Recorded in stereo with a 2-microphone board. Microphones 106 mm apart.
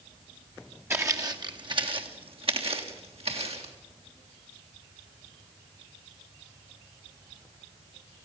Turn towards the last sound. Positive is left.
turn(degrees=-70)  # may be behind; listen again after turning